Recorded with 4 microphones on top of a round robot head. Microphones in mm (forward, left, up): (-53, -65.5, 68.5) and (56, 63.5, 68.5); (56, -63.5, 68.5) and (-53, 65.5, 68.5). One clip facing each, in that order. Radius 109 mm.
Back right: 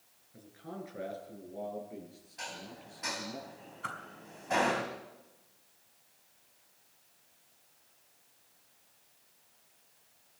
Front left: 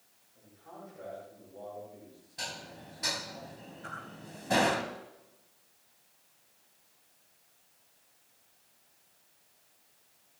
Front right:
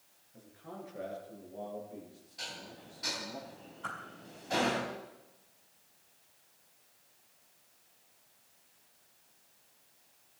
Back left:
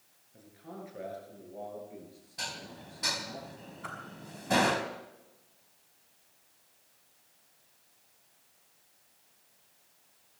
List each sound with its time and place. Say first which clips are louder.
0.3 s a man speaking: back right 6 dB, back left 1 dB; 145° right, 8 m; by 3.4 s 155° right, 10.5 m
2.4 s dishes clattering: front left 1 dB, back left 4 dB; 100° left, 2.5 m
3.8 s a whoosh: back right 4 dB, front right 1 dB; 145° right, 5.5 m